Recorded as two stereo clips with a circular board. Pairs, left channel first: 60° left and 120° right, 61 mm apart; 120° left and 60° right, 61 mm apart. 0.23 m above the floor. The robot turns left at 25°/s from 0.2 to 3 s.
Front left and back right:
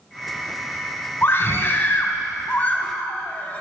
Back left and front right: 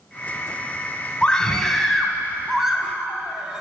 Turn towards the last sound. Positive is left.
turn(degrees=10)